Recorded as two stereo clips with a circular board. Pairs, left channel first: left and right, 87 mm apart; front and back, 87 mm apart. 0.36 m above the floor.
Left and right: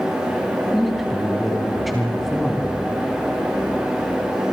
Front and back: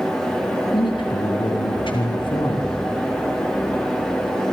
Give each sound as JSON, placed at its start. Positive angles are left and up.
{"t": 0.7, "sound": "a man speaking", "azimuth_deg": 0, "distance_m": 3.0}